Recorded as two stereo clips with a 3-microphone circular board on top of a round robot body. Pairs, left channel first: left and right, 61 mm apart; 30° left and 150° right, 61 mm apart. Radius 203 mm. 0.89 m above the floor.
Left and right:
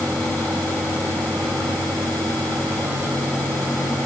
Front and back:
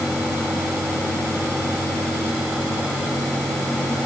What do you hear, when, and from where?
Only background noise.